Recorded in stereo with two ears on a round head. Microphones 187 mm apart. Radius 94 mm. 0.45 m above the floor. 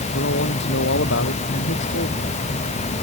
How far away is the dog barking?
I don't hear a dog barking.